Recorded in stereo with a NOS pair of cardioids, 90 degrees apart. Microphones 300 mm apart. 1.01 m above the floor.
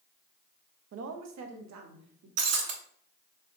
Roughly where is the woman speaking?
Ahead right.